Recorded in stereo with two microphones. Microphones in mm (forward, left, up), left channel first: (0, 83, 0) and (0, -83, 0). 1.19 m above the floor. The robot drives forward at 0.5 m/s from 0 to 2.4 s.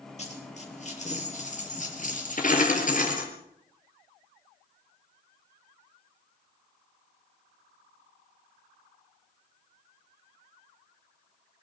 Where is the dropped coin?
45° left (ahead or behind), 5 m; by 3.3 s 50° left (ahead or behind), 4 m.